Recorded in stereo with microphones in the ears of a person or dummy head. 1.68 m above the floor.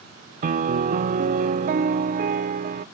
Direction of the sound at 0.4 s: 45° right (ahead or behind).